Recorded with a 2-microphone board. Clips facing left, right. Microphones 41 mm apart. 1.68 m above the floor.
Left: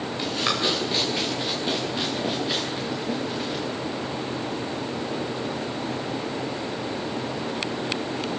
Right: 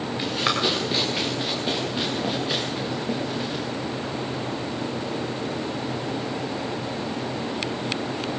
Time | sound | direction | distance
0.2 | running footsteps | 15° right (ahead or behind) | 8 m